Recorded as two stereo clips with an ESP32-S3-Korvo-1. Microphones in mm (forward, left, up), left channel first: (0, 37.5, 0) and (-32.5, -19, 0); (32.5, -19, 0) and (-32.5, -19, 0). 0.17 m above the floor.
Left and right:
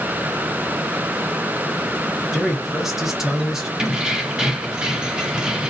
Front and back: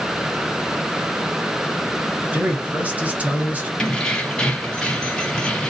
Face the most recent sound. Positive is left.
turn(degrees=-55)